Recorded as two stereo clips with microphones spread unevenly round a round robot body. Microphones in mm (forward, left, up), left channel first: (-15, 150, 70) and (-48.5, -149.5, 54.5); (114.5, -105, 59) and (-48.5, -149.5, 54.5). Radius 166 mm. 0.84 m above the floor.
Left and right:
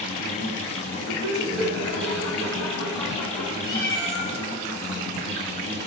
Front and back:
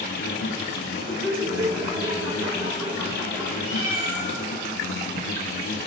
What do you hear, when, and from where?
0.0 s an insect: 15° left, 3 m
1.1 s laughter: 150° left, 6.5 m
3.6 s a cat meowing: 140° left, 8 m